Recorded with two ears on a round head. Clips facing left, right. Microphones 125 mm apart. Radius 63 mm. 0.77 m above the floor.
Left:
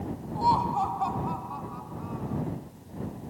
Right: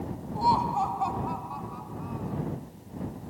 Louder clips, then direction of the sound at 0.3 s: Even; centre (ahead or behind).